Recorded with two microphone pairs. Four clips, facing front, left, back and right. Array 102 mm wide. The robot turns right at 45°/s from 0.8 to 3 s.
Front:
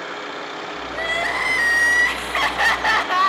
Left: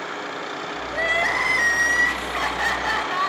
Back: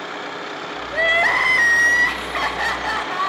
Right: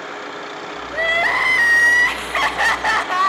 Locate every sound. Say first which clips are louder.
0.9 s crying: right 4 dB, back 6 dB; 145° right, 0.5 m; by 3.3 s 55° right, 0.5 m